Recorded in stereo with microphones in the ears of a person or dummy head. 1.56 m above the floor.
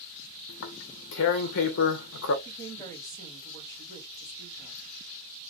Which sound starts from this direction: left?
Tearing paper, at 0.5 s.